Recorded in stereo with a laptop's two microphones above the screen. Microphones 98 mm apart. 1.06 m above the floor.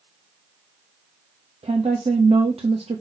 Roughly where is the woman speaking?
Right.